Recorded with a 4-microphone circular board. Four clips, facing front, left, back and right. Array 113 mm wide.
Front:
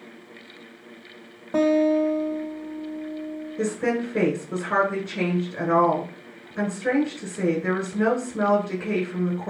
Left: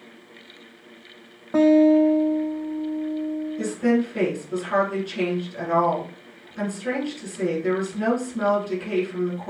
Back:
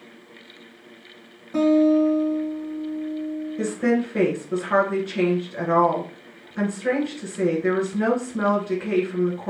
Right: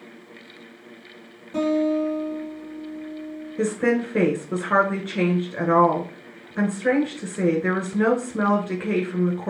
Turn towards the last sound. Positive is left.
turn(degrees=-90)